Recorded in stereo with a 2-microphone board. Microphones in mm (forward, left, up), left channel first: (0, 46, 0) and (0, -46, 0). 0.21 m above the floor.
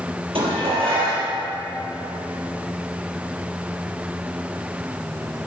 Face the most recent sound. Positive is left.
turn(degrees=-80)